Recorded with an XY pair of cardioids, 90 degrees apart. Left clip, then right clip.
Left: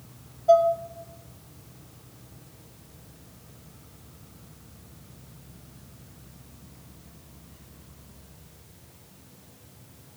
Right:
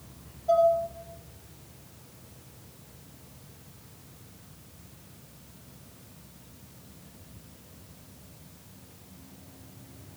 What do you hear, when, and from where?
0.5 s dishes clattering: 55° left, 2.5 m